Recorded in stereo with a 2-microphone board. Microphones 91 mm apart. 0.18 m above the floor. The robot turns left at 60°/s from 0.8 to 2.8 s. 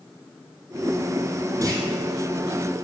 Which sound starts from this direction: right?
A clunk, at 1.6 s.